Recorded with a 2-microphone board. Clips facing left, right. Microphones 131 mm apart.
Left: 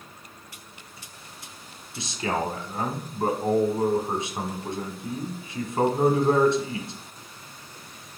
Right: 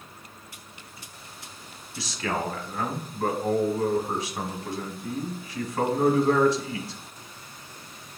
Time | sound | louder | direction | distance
2.0 | a man speaking | left 2 dB | 25° left (ahead or behind) | 1.1 m